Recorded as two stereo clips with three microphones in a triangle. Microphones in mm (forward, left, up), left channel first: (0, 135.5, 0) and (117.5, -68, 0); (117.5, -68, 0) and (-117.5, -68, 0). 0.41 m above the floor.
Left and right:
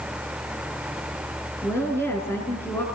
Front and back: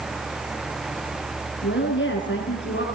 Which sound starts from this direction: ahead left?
A woman speaking, at 1.6 s.